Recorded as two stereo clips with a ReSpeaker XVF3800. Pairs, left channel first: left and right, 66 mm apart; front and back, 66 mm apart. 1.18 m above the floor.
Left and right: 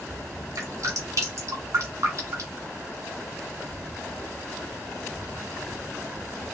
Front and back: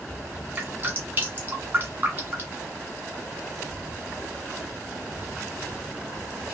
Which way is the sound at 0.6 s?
125° right.